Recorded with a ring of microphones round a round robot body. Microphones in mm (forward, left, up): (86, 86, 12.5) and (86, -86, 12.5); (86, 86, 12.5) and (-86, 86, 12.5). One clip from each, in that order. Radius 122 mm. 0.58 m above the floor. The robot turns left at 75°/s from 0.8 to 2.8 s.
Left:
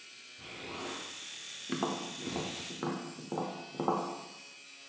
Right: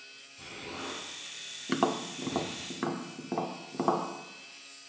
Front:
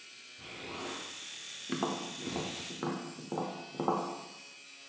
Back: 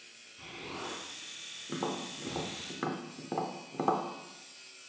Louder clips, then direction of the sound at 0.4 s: Right 2 dB, back 1 dB; 155° right.